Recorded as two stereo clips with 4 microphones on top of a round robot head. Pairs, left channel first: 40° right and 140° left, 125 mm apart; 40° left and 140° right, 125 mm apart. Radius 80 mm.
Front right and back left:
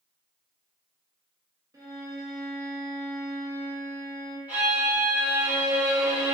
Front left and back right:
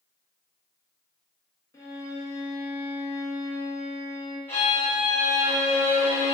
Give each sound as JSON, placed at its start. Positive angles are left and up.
{"t": 1.7, "sound": "a violin", "azimuth_deg": 90, "distance_m": 0.7}
{"t": 4.5, "sound": "a violin", "azimuth_deg": 85, "distance_m": 0.9}